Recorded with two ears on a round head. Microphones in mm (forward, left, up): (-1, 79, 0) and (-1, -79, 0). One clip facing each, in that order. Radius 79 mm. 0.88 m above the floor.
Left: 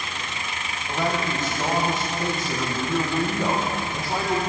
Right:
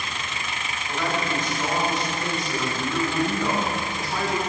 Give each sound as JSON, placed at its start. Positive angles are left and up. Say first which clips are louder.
{"t": 0.9, "sound": "a man speaking", "louder": "left 1 dB", "side_deg": 20, "distance_m": 4.0}